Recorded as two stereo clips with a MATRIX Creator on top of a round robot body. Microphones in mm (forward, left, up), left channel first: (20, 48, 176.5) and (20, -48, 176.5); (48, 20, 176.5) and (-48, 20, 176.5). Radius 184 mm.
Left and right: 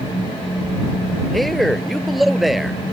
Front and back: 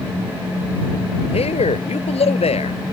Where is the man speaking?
Straight ahead.